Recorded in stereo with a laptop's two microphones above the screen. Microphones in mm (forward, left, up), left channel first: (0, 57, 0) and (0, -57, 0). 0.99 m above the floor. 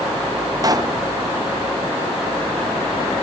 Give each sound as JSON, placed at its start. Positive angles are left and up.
{"t": 0.6, "sound": "a pop", "side_deg": -30, "distance_m": 0.6}